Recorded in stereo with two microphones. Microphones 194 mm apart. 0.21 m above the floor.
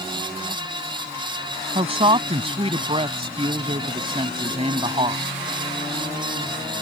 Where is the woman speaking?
30° right (ahead or behind).